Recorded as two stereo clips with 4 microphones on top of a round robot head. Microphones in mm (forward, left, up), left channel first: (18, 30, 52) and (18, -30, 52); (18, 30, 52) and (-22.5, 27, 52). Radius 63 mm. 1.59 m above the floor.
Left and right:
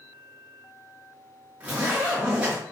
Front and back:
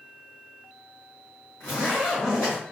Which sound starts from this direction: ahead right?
A zipper, at 1.6 s.